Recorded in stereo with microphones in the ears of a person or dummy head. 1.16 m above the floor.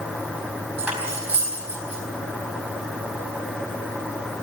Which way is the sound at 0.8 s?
5° right (ahead or behind).